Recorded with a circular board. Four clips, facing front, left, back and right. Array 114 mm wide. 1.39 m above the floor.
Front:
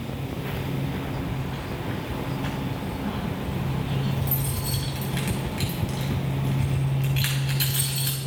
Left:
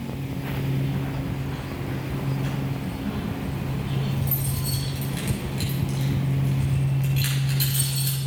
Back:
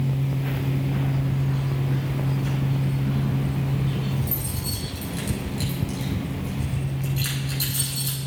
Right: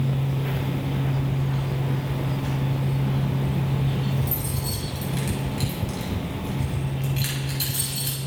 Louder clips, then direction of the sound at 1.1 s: Right 3 dB, back 4 dB; straight ahead.